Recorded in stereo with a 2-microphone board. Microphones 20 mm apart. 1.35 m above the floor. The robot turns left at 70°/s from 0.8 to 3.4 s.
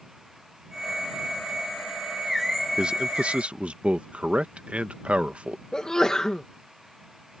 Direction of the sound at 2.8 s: 45° right.